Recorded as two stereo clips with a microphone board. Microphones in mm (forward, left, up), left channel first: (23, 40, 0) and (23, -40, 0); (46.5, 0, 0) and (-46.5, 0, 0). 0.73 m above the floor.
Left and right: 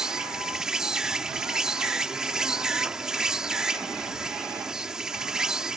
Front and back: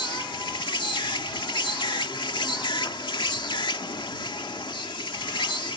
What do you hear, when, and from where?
0.0 s an insect: 10° right